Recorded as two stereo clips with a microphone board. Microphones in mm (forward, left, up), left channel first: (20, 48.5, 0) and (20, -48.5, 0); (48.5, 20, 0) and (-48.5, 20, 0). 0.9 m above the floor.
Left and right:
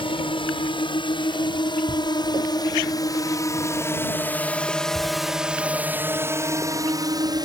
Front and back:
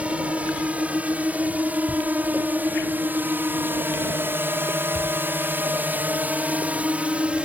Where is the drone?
105° left; by 7.5 s 105° right.